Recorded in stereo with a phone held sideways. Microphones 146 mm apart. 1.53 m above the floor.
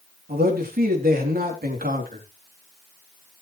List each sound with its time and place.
0.3 s a man speaking: 85° right, 3.5 m